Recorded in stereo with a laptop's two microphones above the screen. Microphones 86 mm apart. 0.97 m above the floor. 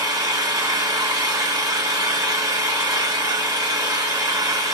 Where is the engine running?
45° right (ahead or behind), 0.9 m.